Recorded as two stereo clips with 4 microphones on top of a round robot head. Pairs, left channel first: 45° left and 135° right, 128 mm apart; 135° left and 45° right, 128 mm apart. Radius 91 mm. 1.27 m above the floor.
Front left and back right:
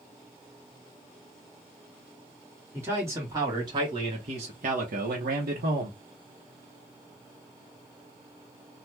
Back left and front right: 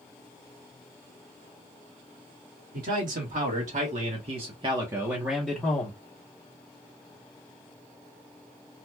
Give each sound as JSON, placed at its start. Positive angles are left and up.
{"t": 2.7, "sound": "a man speaking", "azimuth_deg": -65, "distance_m": 1.6}